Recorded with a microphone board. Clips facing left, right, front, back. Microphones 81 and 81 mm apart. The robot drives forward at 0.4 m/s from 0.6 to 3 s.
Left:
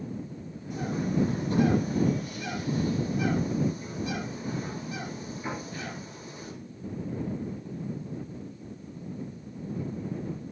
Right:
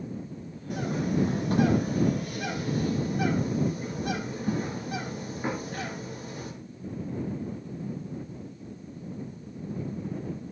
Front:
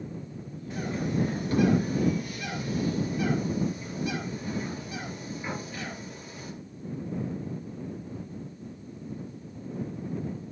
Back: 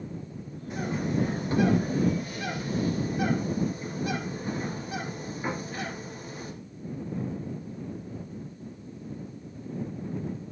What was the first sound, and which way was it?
A bird, 105° right.